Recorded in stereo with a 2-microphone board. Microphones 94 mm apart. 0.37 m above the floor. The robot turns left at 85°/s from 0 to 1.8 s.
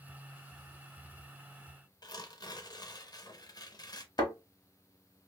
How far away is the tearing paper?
About 0.5 m.